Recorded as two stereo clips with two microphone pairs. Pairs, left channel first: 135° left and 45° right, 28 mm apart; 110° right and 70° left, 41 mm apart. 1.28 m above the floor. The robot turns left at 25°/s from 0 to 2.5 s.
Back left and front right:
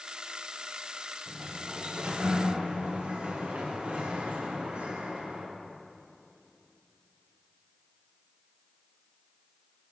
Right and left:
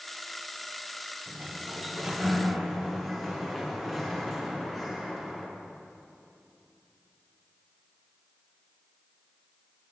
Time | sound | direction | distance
1.3 | a sliding door | 10° left | 1.0 m